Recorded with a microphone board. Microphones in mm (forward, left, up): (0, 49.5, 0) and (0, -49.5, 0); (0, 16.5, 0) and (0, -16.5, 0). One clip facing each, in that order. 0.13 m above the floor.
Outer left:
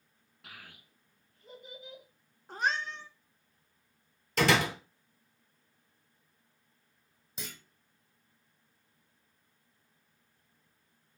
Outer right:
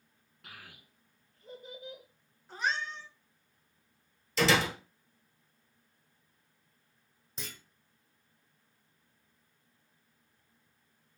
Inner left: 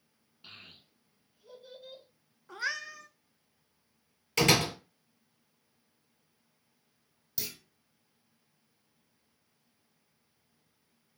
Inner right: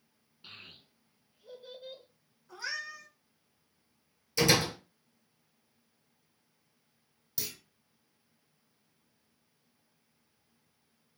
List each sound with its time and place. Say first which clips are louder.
0.4 s a child speaking: even, inner right 1 dB; centre (ahead or behind), 1.1 m; by 2.0 s 45° right (ahead or behind), 1.4 m
2.5 s a cat meowing: outer left 2 dB, inner left 3 dB; 50° left (ahead or behind), 0.6 m
4.4 s a door slam: outer left 1 dB, inner left 1 dB; 55° left (ahead or behind), 2.0 m
7.4 s a clunk: even, even; 5° left (ahead or behind), 1.1 m